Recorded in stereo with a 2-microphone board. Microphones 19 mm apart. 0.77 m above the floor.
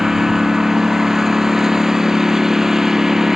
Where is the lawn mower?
20° right (ahead or behind).